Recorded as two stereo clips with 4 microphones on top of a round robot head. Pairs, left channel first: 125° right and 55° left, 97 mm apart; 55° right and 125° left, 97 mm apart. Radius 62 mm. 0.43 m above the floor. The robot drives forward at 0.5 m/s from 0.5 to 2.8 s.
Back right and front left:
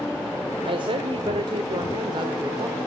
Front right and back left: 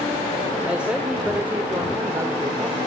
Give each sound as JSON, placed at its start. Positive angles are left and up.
{"t": 0.7, "sound": "a woman speaking", "azimuth_deg": 45, "distance_m": 1.9}